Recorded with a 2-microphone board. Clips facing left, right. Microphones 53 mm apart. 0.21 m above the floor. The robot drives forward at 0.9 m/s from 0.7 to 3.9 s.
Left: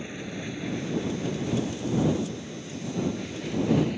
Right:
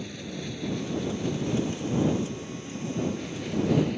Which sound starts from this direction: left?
An aircraft, at 0.0 s.